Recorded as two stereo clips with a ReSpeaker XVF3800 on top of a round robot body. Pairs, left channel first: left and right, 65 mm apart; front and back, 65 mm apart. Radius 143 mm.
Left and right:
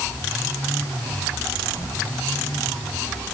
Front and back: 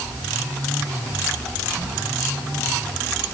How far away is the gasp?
No gasp in this recording.